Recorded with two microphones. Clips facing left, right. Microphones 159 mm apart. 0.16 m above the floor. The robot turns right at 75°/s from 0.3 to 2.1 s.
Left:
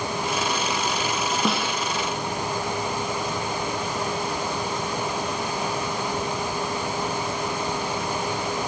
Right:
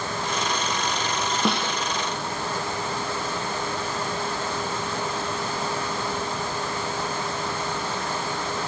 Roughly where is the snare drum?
Centre.